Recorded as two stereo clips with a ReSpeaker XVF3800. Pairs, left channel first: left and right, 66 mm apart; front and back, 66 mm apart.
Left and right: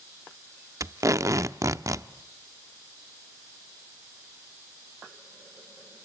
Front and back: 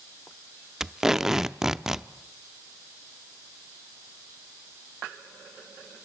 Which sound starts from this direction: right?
Tape being pulled, at 0.8 s.